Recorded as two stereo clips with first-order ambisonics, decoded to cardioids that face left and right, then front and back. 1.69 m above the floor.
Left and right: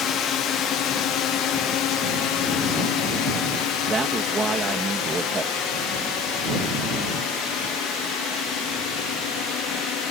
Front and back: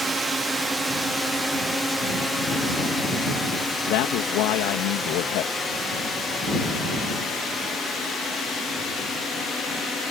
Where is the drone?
110° left; by 10.1 s 65° left.